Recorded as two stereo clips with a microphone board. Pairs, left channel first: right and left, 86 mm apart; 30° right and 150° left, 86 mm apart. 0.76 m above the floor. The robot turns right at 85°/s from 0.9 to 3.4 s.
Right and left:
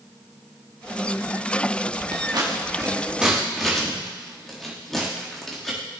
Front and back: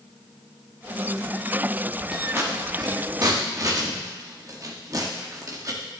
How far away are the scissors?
About 1.8 m.